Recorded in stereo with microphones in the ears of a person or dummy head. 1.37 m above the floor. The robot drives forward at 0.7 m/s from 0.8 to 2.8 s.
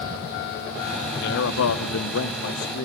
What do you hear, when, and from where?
1.2 s a man speaking: 60° left (ahead or behind), 0.9 m; by 2.9 s 50° left (ahead or behind), 1.1 m